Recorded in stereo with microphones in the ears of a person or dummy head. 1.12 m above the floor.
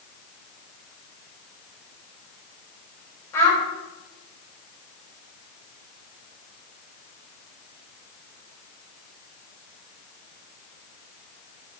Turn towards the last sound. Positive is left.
turn(degrees=10)  # may be behind; listen again after turning